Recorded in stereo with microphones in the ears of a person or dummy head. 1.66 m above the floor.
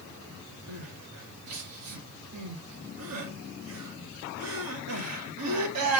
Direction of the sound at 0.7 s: 85° right.